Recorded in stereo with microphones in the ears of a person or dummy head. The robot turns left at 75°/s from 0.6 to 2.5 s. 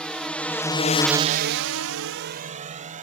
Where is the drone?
5° left (ahead or behind); by 3.0 s 40° right (ahead or behind).